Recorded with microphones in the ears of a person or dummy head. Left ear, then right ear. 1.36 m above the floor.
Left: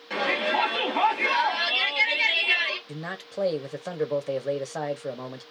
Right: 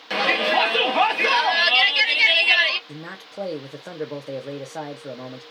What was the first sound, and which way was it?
A shout, 25° right (ahead or behind).